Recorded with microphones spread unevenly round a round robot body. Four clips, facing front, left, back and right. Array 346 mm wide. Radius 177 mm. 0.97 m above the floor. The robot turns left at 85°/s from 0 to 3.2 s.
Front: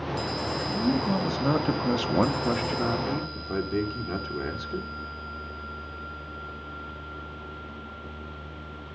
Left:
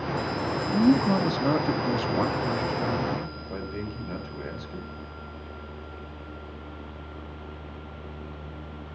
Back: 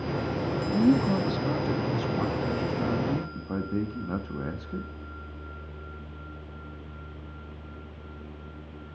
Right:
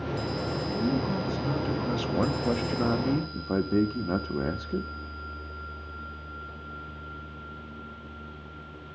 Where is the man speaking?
110° left, 1.5 m; by 4.9 s 100° right, 1.5 m.